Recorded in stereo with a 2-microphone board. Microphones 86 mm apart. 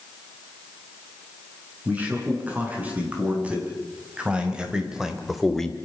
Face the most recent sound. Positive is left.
turn(degrees=10)  # may be behind; listen again after turning